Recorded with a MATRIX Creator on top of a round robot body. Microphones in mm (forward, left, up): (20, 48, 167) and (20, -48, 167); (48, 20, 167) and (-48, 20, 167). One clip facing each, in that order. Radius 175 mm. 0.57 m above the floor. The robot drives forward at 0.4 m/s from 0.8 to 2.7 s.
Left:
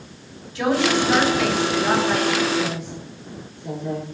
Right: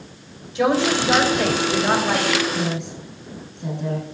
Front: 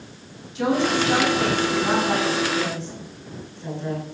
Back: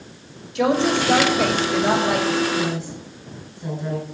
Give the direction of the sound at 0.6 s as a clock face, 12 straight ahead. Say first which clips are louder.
Right 1 dB, back 2 dB; 5 o'clock.